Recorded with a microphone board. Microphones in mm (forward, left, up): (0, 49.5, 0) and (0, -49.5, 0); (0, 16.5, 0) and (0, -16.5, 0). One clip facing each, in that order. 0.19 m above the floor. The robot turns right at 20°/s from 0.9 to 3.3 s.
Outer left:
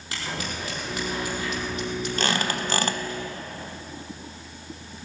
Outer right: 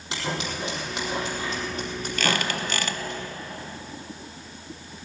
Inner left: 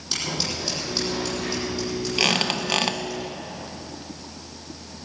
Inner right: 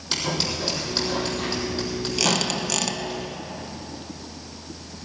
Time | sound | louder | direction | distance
0.1 | scissors | outer right 3 dB, inner right 2 dB | 20° right (ahead or behind) | 4.5 m
2.2 | a squeak | outer right 1 dB, inner left 2 dB | 30° left (ahead or behind) | 0.7 m